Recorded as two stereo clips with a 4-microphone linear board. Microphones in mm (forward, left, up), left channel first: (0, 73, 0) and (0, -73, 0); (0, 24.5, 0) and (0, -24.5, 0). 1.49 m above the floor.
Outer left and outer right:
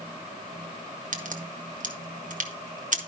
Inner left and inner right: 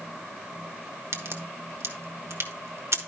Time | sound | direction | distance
1.1 | a crack | 60° right (ahead or behind) | 1.2 m